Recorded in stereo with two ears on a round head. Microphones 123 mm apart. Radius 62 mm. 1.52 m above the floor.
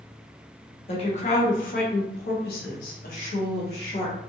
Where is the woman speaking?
45° left (ahead or behind), 1.0 m; by 4.2 s 40° left (ahead or behind), 1.4 m.